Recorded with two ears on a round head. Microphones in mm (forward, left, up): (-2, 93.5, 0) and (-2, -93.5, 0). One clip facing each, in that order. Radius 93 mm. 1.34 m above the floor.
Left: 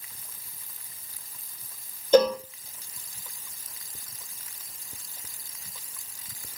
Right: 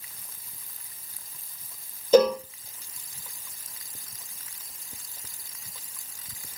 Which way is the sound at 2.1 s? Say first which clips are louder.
Right 1 dB; 5° right (ahead or behind).